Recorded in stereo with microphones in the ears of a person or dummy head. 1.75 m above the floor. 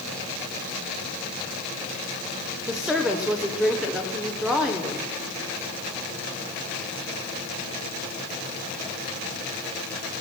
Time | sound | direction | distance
2.7 | a woman speaking | 5° right (ahead or behind) | 0.6 m